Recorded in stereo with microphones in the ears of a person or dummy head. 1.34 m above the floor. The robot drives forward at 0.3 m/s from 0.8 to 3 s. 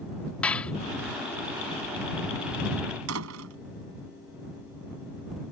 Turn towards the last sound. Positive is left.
turn(degrees=-85)